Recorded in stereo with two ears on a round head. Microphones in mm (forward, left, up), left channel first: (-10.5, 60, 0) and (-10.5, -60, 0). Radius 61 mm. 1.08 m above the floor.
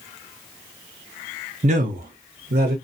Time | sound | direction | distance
1.6 | a man speaking | 55° right (ahead or behind) | 0.6 m